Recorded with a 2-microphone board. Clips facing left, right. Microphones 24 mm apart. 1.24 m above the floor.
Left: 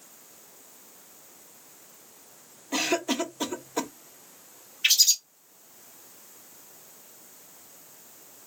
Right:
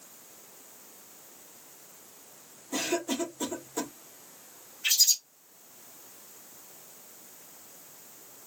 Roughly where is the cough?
Left.